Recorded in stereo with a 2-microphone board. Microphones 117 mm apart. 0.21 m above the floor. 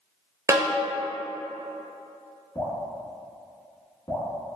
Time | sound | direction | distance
0.5 | a snare drum | 25° right (ahead or behind) | 0.6 m
2.5 | dripping | 35° left (ahead or behind) | 1.0 m